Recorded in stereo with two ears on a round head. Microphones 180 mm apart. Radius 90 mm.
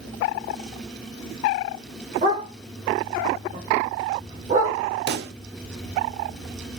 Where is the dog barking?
35° right (ahead or behind), 3 m.